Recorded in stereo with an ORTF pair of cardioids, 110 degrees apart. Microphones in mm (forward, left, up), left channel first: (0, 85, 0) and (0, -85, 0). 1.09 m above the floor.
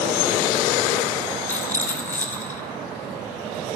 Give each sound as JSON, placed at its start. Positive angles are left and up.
{"t": 1.5, "sound": "a rattle", "azimuth_deg": 10, "distance_m": 1.3}